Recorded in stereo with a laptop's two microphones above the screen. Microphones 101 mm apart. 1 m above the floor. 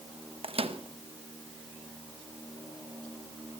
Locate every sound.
0.4 s a microwave: 60° right (ahead or behind), 0.8 m